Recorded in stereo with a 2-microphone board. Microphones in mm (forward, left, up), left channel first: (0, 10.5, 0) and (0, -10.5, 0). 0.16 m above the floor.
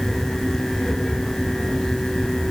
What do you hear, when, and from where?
Only background noise.